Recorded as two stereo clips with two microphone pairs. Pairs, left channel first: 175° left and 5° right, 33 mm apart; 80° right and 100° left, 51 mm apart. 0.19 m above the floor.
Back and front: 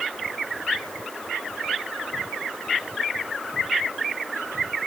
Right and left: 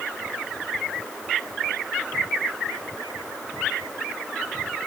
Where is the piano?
I don't hear a piano.